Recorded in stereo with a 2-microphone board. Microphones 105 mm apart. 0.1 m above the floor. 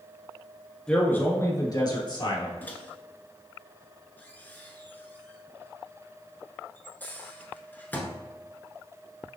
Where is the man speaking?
10° left (ahead or behind), 1.1 m; by 2.5 s 50° left (ahead or behind), 1.9 m.